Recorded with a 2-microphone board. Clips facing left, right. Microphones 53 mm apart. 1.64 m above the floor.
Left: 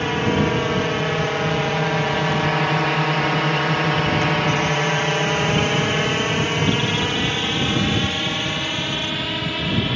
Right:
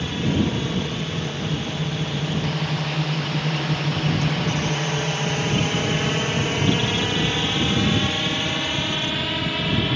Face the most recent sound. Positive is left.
turn(degrees=15)  # may be behind; listen again after turning